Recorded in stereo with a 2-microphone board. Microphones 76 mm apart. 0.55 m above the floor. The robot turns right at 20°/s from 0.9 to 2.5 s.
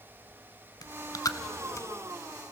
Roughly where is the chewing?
Left.